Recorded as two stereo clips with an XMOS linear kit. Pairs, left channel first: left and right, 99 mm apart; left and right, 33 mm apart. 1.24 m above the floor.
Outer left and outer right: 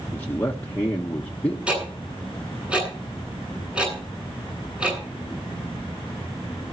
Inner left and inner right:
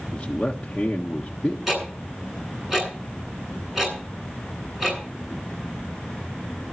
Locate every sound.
0.1 s a man speaking: 20° left (ahead or behind), 1.4 m
1.7 s ticking: 10° right (ahead or behind), 9.5 m